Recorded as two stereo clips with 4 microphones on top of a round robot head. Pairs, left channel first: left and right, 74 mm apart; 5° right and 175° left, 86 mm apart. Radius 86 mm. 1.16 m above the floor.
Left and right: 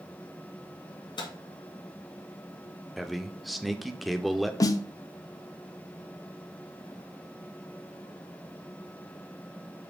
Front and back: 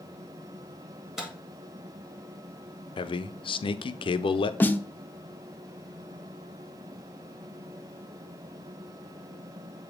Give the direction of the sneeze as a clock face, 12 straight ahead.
No sneeze in this recording.